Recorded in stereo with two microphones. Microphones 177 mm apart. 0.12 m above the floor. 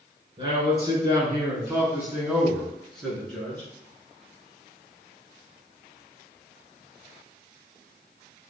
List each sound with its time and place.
0.4 s a man speaking: 30° right (ahead or behind), 1.5 m; by 3.7 s 10° left (ahead or behind), 1.6 m